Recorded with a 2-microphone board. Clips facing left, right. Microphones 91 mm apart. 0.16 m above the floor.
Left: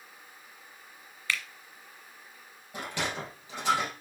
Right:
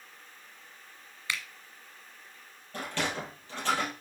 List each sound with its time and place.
1.3 s a finger snap: 15° right (ahead or behind), 1.3 m
2.7 s a sliding door: 10° left (ahead or behind), 3.5 m